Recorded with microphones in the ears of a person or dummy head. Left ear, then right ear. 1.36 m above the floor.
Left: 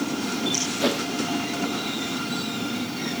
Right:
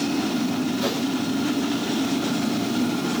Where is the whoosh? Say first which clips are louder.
Left 3 dB; 20° left (ahead or behind), 1.4 m.